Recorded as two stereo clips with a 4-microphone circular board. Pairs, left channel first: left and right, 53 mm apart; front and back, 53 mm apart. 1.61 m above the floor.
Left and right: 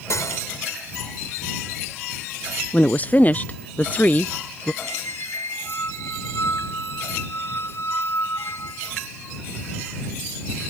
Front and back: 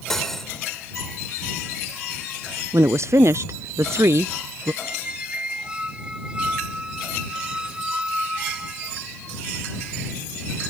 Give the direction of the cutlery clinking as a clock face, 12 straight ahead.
9 o'clock.